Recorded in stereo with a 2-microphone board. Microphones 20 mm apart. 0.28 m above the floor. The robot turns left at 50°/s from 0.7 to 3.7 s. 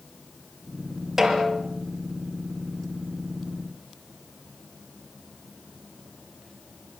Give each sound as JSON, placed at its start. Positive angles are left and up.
{"t": 1.2, "sound": "a snare drum", "side_deg": -20, "distance_m": 5.5}